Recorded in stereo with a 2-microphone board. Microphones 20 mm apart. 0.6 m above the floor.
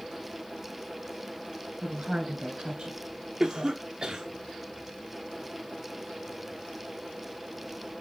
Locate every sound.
1.8 s a woman speaking: 45° right (ahead or behind), 4 m; by 3.8 s 40° right (ahead or behind), 2.5 m
3.4 s a cough: 40° right (ahead or behind), 1.2 m